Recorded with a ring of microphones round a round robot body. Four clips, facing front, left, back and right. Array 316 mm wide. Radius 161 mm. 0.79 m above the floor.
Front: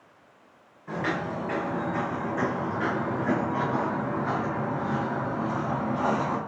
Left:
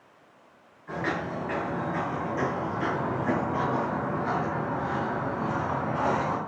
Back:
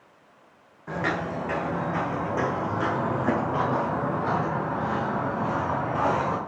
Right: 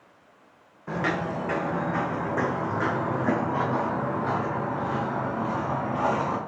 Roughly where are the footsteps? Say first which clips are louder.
Right 3 dB, back 1 dB; behind right.